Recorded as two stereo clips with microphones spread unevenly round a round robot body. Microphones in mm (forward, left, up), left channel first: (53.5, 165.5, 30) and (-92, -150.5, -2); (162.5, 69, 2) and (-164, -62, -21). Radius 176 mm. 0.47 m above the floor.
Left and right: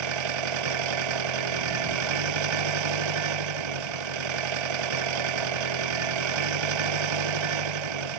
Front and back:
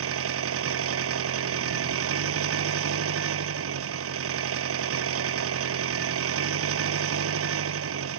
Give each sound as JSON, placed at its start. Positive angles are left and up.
{"t": 0.0, "sound": "an engine running", "azimuth_deg": -105}